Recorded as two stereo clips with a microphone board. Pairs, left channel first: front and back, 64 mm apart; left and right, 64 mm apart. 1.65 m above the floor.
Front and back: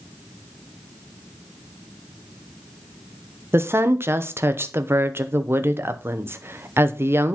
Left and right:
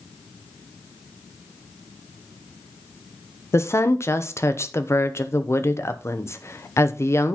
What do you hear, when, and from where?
3.5 s a woman speaking: 135° left, 0.9 m